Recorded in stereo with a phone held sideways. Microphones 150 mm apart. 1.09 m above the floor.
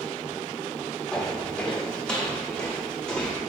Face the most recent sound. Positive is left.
turn(degrees=5)  # may be behind; listen again after turning